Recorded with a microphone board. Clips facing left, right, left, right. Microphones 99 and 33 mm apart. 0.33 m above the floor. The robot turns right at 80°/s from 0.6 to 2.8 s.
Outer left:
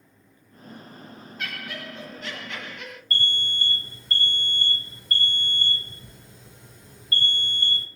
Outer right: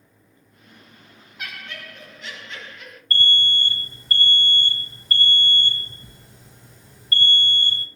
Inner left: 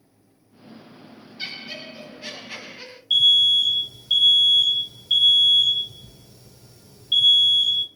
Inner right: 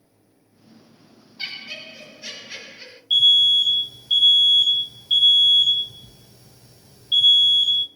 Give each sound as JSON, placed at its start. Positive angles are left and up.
{"t": 1.4, "sound": "laughter", "azimuth_deg": -15, "distance_m": 1.8}
{"t": 3.1, "sound": "an alarm", "side_deg": 0, "distance_m": 1.4}